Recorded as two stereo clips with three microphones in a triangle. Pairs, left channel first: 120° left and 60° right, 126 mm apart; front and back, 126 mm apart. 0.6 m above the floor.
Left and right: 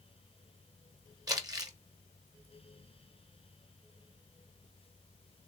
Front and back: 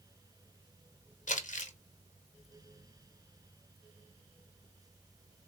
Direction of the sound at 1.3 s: Straight ahead.